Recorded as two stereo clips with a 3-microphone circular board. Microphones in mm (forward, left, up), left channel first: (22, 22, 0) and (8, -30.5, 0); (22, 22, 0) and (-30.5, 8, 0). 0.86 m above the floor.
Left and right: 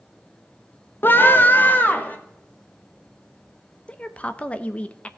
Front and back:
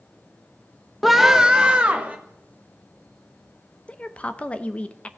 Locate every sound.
1.0 s a scream: 105° left, 0.7 m; by 2.2 s 130° left, 1.5 m
3.9 s a woman speaking: 45° left, 0.6 m